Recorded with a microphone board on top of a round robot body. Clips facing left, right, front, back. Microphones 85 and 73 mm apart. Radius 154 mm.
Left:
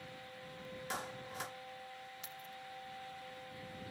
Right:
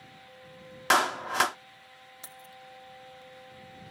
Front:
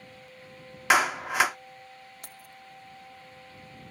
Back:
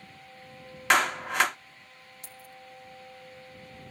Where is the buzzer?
I don't hear a buzzer.